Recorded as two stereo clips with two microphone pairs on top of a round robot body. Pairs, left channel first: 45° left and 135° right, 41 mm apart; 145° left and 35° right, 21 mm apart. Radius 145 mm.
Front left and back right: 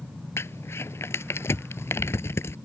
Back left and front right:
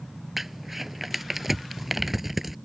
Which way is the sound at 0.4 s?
40° left.